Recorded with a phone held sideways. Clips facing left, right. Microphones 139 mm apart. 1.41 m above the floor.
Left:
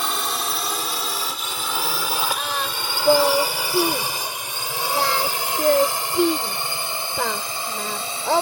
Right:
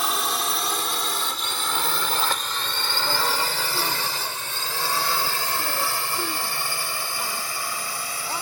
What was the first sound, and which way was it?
A drone, centre (ahead or behind).